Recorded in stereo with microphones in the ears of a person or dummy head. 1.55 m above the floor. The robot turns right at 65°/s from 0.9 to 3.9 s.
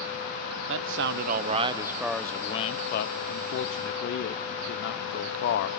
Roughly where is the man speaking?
Right.